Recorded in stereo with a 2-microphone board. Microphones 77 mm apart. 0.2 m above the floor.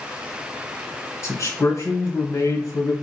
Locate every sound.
1.2 s a man speaking: 40° left (ahead or behind), 1.9 m